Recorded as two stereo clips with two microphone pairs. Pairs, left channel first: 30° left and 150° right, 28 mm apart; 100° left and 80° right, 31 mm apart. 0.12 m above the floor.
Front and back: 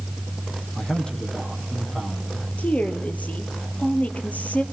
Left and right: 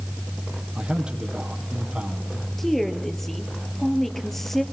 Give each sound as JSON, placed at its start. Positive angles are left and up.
{"t": 0.8, "sound": "a man speaking", "azimuth_deg": -25, "distance_m": 5.0}
{"t": 2.6, "sound": "a woman speaking", "azimuth_deg": 20, "distance_m": 2.5}